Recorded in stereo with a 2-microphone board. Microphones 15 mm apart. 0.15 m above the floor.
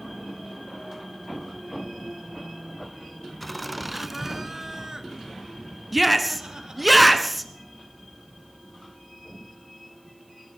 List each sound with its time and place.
3.4 s laughter: 5° left (ahead or behind), 1.3 m; by 6.9 s 60° right (ahead or behind), 3.5 m
5.9 s a shout: centre (ahead or behind), 1.7 m